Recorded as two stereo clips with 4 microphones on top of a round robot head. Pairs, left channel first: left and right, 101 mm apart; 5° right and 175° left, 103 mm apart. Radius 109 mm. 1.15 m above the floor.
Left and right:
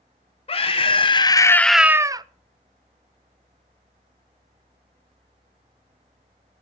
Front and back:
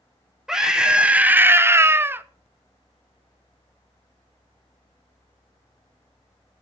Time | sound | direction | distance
0.5 | a scream | 90° left | 1.5 m